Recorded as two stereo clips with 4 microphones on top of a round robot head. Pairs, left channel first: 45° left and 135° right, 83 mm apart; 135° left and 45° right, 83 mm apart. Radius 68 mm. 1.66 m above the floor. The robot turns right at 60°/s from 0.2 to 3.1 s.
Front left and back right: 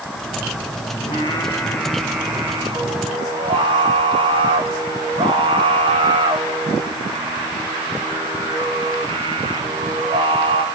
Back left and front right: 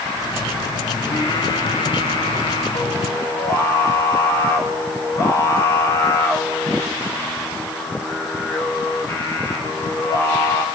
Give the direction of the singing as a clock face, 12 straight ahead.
10 o'clock.